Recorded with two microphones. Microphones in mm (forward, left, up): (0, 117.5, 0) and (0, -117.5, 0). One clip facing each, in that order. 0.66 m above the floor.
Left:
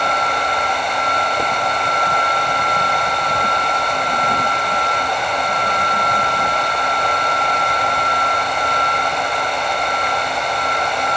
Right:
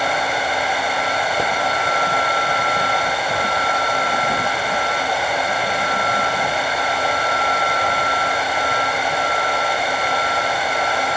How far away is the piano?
No piano in this recording.